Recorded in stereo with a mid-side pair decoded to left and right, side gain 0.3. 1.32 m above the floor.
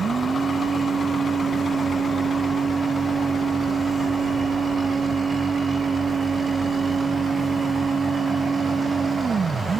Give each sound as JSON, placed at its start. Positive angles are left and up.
{"t": 0.0, "sound": "a machine running", "azimuth_deg": -60}